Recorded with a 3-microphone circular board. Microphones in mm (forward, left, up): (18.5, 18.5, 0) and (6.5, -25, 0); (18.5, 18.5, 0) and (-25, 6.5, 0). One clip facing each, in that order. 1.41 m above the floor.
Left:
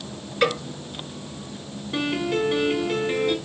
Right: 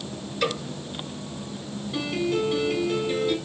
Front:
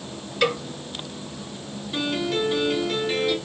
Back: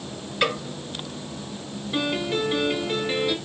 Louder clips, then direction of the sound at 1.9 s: Left 2 dB, even; 120° left.